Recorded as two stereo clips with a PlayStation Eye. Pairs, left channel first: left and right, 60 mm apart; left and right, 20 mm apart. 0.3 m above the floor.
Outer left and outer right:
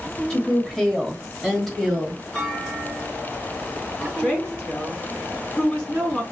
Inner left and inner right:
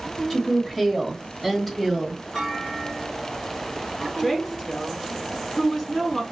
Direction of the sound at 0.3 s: 10° left (ahead or behind).